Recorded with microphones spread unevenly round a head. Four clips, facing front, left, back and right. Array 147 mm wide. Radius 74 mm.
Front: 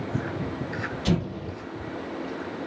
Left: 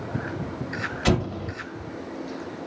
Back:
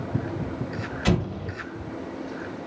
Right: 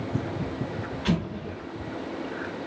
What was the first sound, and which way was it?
An explosion, 120° left.